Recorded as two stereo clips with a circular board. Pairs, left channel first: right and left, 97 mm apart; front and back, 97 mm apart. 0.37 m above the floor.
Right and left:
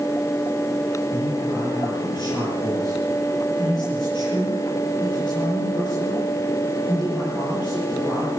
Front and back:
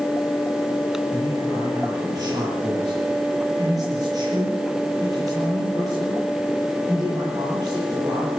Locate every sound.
1.1 s a man speaking: 130° right, 8.5 m